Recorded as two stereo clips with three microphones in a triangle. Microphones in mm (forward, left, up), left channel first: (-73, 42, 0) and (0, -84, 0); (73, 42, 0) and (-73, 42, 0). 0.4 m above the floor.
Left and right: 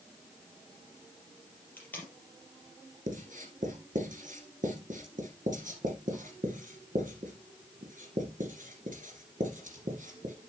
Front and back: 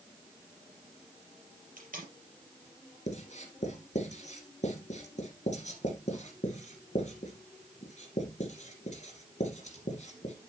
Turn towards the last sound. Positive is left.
turn(degrees=-35)